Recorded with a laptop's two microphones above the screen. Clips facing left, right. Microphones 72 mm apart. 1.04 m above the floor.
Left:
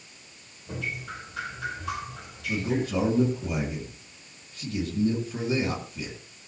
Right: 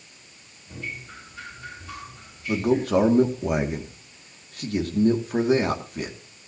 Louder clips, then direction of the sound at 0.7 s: Left 3 dB; 80° left.